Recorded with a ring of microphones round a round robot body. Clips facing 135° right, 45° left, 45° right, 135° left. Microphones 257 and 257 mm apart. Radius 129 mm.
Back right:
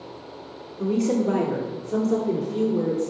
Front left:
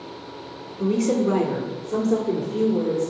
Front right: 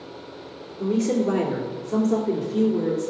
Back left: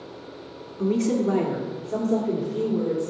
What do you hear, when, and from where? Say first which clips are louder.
0.8 s a woman speaking: front left 1 dB, even; 105° left, 1.1 m; by 3.1 s 65° right, 1.4 m